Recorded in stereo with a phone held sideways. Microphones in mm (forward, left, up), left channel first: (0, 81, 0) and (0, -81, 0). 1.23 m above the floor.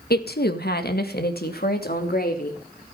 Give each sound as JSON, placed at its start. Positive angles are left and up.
{"t": 0.1, "sound": "a woman speaking", "side_deg": 75, "distance_m": 1.4}